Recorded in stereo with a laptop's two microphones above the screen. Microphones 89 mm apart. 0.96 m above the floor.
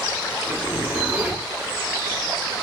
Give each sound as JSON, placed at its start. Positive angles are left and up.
{"t": 0.5, "sound": "a zipper", "side_deg": -15, "distance_m": 3.5}